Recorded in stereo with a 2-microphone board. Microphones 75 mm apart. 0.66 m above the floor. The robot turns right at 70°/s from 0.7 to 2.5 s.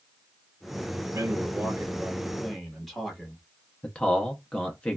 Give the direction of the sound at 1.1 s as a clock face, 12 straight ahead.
3 o'clock.